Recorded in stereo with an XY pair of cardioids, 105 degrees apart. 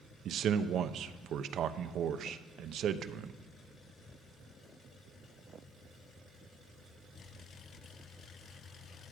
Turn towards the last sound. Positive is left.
turn(degrees=-65)